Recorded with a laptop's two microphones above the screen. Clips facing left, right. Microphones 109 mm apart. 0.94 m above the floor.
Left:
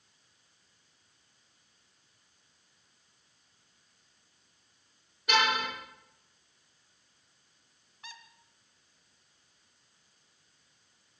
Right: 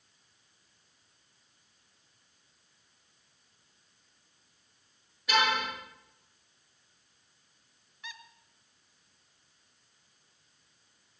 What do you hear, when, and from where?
5.3 s a car horn: 50° left (ahead or behind), 7.5 m
8.0 s a squeak: 40° left (ahead or behind), 1.2 m